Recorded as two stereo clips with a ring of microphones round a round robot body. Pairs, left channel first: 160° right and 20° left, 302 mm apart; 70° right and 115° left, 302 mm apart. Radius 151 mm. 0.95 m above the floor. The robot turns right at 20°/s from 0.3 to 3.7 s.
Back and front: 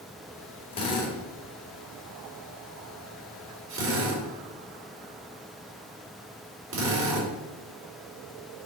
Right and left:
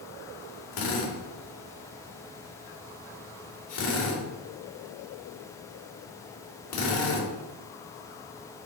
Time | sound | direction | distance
0.7 | a drill | 85° right | 3.5 m